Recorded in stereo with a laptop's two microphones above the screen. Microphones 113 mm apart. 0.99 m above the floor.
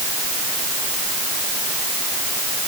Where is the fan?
I don't hear a fan.